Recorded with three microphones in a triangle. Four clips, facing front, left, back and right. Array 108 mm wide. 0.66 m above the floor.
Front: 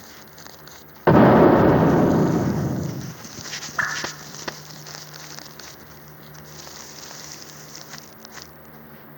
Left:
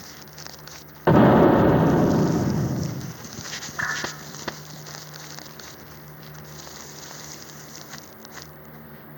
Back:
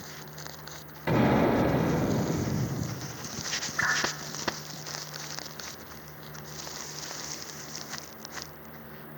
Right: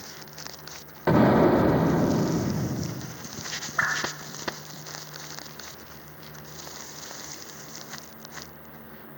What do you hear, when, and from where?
0.0 s an insect: 25° right, 3 m
1.1 s an explosion: 20° left, 0.5 m
3.8 s a whoosh: 45° right, 3.5 m